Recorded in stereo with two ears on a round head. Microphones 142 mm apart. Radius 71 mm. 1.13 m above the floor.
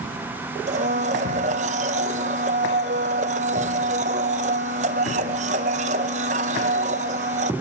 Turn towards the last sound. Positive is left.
turn(degrees=-45)  # may be behind; listen again after turning